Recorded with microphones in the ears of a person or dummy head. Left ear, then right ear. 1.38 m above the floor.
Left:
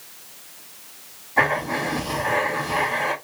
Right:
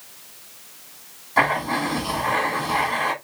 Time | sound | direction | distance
1.4 | writing | 55° right (ahead or behind) | 1.7 m